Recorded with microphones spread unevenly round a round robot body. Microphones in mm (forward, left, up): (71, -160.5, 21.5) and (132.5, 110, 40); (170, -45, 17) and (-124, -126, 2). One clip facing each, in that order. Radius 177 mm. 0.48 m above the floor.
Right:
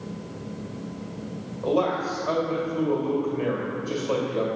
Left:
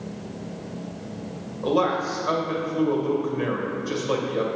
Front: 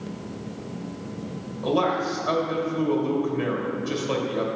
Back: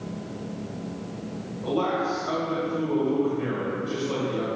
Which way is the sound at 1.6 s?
15° left.